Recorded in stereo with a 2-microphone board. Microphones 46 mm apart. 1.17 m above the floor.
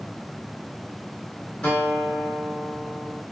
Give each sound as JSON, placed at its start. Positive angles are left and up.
{"t": 1.6, "sound": "a guitar", "side_deg": 30, "distance_m": 2.0}